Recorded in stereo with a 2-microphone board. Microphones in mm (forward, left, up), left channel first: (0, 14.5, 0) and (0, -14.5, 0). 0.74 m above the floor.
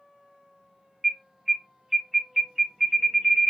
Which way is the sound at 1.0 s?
15° right (ahead or behind).